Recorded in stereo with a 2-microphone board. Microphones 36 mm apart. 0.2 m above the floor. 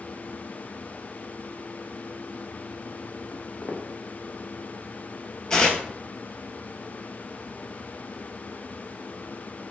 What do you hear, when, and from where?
3.3 s footsteps: 60° left (ahead or behind), 0.8 m
5.5 s tearing paper: 25° left (ahead or behind), 0.6 m